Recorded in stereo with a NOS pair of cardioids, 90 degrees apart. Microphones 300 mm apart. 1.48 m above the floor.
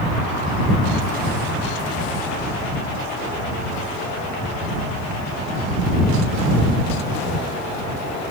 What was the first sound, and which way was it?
Only background noise.